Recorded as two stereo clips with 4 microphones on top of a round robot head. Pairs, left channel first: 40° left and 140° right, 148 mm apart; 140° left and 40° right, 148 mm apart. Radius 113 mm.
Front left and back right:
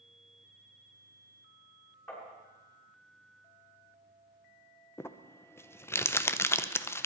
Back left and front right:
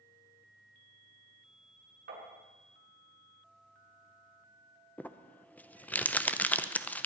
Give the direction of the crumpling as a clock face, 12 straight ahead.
9 o'clock.